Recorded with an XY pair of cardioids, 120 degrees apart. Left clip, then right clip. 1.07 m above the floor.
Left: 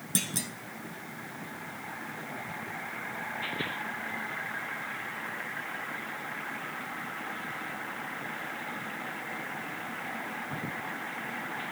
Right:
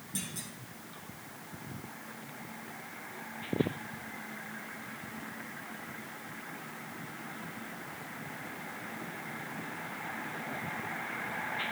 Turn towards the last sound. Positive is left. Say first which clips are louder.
# left 9 dB
turn(degrees=65)